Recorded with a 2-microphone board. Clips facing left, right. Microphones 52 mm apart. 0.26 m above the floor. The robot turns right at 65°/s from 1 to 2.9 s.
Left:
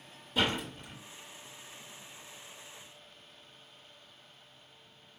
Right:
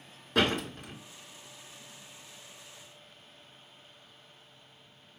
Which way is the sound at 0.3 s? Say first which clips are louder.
Right 3 dB; 70° right (ahead or behind).